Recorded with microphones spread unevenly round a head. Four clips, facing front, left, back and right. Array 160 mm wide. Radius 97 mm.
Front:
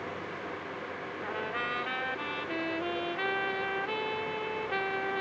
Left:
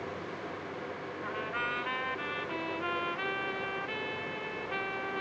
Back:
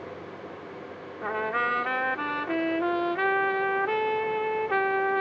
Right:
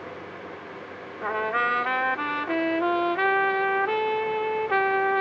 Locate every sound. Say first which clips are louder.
1.2 s a trumpet: right 12 dB, back 8 dB; 135° right